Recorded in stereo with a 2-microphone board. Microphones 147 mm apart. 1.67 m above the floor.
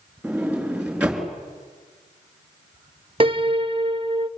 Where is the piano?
35° right (ahead or behind), 0.7 m.